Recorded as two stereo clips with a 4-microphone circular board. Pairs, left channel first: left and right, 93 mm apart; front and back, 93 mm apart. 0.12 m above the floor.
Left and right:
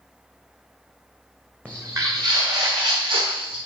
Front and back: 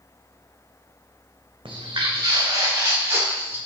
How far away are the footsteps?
About 0.6 m.